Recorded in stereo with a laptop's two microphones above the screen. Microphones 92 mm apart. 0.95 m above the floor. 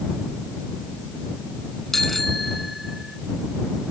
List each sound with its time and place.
1.9 s a bicycle bell: 5° left (ahead or behind); by 3.2 s 5° right (ahead or behind)